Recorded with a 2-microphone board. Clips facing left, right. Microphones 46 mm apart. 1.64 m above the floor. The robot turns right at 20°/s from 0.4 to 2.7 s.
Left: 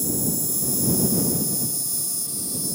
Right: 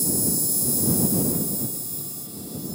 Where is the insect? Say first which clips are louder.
Even; 40° left; by 2.8 s 90° left.